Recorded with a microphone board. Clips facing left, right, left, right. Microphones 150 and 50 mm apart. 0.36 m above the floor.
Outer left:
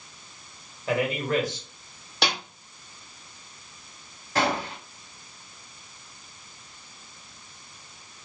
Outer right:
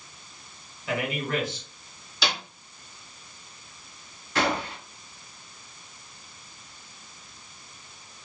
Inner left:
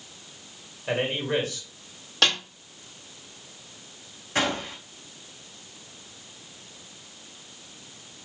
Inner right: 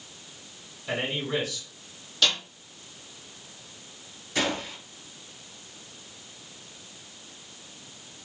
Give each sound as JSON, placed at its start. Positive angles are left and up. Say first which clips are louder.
{"t": 0.9, "sound": "a man speaking", "louder": "outer left 3 dB, inner left 3 dB", "side_deg": 45, "distance_m": 1.8}
{"t": 2.2, "sound": "a snare drum", "louder": "outer left 2 dB, inner left 3 dB", "side_deg": 65, "distance_m": 1.4}
{"t": 4.3, "sound": "a gunshot", "louder": "outer left 1 dB, inner left 2 dB", "side_deg": 45, "distance_m": 1.8}